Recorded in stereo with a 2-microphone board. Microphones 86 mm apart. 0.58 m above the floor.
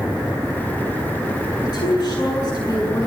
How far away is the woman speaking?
About 8.5 m.